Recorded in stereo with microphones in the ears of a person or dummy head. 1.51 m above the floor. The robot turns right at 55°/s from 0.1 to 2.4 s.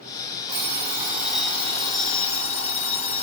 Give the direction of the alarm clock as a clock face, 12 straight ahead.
2 o'clock.